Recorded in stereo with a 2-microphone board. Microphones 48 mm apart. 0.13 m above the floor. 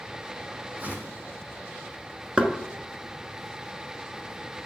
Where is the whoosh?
45° right (ahead or behind), 2.0 m.